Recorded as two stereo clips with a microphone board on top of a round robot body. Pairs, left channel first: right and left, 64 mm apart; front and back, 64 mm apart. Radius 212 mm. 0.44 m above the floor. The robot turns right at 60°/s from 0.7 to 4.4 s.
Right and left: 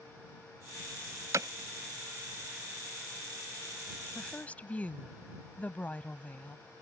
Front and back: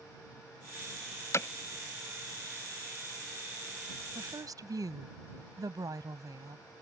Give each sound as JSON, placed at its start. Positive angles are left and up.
{"t": 1.3, "sound": "hammering", "azimuth_deg": 45}
{"t": 4.2, "sound": "a woman speaking", "azimuth_deg": -175}